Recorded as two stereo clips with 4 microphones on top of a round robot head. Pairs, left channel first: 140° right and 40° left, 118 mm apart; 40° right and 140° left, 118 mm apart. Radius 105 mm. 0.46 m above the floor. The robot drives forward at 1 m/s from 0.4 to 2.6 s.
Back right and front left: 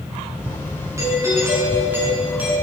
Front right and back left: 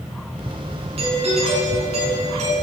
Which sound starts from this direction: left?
A doorbell, at 1.0 s.